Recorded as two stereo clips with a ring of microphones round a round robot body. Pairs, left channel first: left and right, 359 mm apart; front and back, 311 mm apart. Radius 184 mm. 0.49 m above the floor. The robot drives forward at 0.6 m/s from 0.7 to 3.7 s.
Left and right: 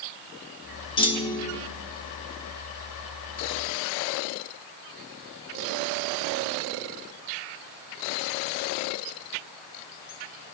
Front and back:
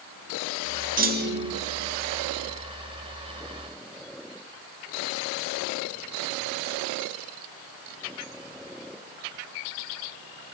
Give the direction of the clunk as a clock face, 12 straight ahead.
7 o'clock.